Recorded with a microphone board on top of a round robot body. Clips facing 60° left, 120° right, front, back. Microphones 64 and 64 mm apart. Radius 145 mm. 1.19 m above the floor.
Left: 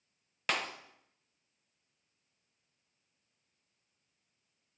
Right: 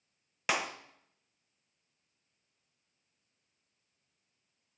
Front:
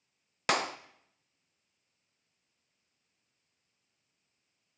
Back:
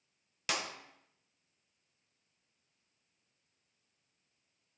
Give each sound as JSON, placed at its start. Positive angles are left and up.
{"t": 0.5, "sound": "a clap", "azimuth_deg": -40, "distance_m": 1.2}